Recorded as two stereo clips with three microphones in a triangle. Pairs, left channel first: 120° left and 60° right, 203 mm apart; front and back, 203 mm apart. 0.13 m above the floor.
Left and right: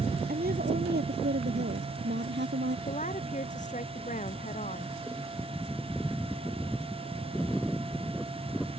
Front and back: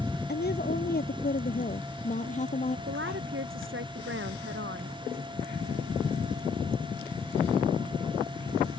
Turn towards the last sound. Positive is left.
turn(degrees=170)